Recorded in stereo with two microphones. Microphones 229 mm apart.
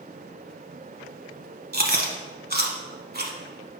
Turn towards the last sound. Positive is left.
turn(degrees=-45)  # may be behind; listen again after turning